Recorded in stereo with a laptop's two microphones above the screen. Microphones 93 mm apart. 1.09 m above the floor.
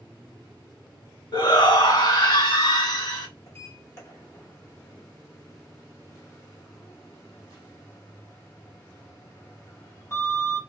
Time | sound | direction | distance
1.3 | a shout | 60° left (ahead or behind) | 1.4 m
3.5 | a sliding door | 30° left (ahead or behind) | 0.7 m